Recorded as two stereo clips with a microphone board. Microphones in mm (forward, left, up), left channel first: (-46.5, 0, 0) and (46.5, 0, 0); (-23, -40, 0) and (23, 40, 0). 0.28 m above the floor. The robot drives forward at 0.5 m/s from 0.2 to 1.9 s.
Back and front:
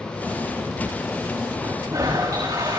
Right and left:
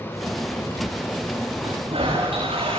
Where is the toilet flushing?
45° left, 10 m.